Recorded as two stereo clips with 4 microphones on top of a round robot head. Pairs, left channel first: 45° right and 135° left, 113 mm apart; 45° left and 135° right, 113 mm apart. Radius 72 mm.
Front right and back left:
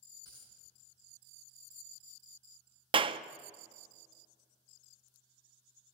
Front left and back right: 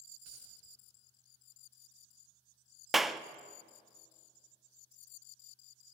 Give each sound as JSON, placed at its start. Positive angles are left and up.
{"t": 0.2, "sound": "a dropped coin", "azimuth_deg": -105, "distance_m": 8.0}
{"t": 2.9, "sound": "a clap", "azimuth_deg": 135, "distance_m": 0.5}